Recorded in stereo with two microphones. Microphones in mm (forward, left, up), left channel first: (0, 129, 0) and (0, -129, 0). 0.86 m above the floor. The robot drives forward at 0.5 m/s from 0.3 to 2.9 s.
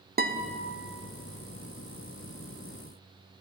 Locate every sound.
0.2 s a guitar: 35° right (ahead or behind), 0.6 m; by 0.6 s 30° right (ahead or behind), 0.7 m